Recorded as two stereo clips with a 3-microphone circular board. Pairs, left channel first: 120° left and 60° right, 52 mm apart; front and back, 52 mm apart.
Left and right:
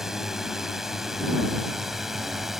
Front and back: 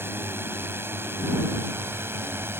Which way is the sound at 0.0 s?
140° right.